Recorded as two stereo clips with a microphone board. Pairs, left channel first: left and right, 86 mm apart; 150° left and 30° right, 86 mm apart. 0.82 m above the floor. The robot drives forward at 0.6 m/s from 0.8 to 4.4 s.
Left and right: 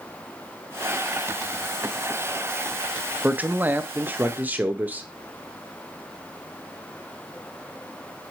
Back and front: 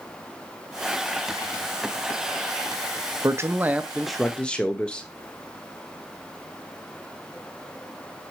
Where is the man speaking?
35° right, 0.8 m; by 5.1 s 145° right, 0.7 m.